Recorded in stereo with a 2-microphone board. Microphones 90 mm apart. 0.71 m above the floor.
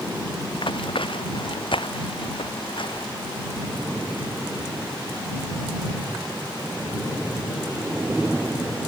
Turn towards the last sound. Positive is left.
turn(degrees=70)  # may be behind; listen again after turning